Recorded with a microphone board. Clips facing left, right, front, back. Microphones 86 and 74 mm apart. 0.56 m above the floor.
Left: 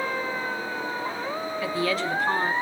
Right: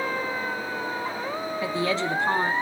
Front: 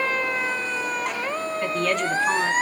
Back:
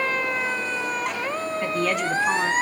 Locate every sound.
1.6 s a woman speaking: 100° right, 0.7 m